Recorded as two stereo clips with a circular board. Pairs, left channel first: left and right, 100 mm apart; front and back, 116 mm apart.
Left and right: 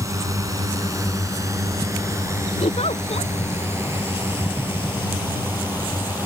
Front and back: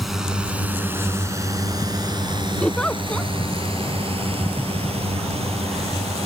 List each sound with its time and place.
0.0 s a drone: 90° right; by 6.3 s 160° right
2.6 s a giggle: 80° left